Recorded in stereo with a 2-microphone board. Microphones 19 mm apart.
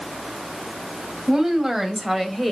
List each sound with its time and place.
1.3 s a woman speaking: 25° right (ahead or behind), 2.5 m; by 2.5 s centre (ahead or behind), 1.8 m